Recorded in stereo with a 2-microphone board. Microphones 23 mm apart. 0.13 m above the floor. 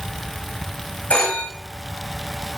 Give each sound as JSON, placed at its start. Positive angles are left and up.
{"t": 1.1, "sound": "a phone ringing", "side_deg": 75, "distance_m": 5.5}